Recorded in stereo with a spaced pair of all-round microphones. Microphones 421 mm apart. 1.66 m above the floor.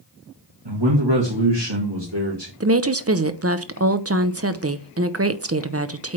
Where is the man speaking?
75° right (ahead or behind), 1.7 m; by 2.5 s 70° right (ahead or behind), 2 m.